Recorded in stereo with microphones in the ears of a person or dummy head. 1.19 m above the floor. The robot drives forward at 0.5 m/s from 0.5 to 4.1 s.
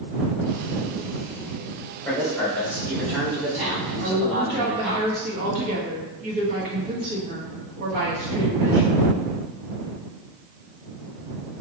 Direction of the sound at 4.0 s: 50° right (ahead or behind).